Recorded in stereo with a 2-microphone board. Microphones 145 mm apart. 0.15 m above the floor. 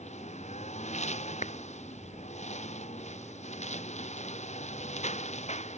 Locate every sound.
0.0 s a lawn mower: 45° left (ahead or behind)
1.4 s a clap: 50° left (ahead or behind)